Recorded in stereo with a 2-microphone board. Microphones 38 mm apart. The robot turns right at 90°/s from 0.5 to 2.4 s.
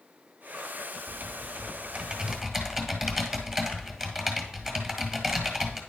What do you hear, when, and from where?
1.1 s typing on a keyboard: 135° right, 1.6 m; by 5.8 s 15° right, 1.6 m